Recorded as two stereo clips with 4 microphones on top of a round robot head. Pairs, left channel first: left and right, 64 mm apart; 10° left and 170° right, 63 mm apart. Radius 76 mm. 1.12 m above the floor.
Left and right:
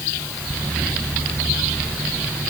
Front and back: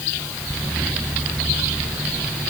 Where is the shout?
No shout in this recording.